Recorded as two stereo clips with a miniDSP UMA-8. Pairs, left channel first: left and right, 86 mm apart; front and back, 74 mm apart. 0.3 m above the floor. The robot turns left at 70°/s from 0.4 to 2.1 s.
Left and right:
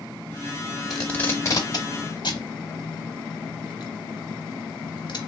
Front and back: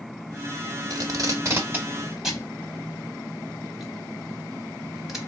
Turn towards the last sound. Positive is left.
turn(degrees=95)